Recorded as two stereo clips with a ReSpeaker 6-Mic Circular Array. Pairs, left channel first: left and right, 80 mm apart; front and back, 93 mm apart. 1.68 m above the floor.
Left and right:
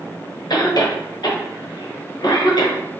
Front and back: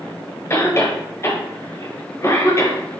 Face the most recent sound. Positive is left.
turn(degrees=60)